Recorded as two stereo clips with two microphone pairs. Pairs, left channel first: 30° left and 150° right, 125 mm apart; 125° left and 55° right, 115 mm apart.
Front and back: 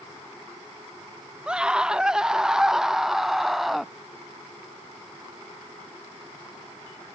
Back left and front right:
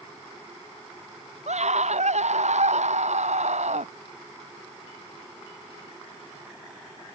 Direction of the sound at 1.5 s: 65° right.